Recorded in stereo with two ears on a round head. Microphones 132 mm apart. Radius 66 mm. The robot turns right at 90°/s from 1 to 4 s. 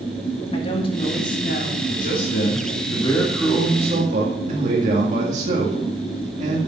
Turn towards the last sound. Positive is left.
turn(degrees=-125)